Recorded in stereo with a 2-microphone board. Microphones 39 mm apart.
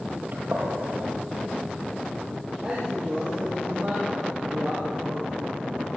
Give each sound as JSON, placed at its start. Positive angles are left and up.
{"t": 0.3, "sound": "a gunshot", "side_deg": -45, "distance_m": 6.0}
{"t": 2.6, "sound": "a man speaking", "side_deg": -20, "distance_m": 10.0}